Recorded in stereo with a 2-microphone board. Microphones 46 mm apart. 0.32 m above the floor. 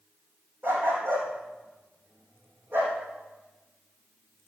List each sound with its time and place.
0.6 s a dog barking: 50° right (ahead or behind), 4 m